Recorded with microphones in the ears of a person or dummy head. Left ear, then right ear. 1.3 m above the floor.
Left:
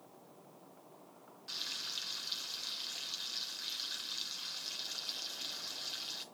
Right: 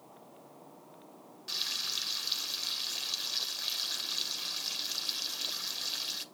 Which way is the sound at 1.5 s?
15° right (ahead or behind).